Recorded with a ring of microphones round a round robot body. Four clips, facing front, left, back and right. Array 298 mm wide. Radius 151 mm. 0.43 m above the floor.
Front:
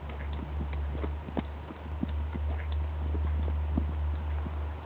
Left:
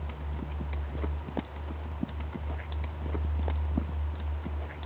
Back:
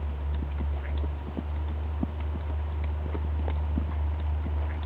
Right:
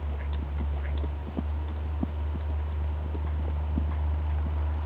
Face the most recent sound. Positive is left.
No sound to turn to.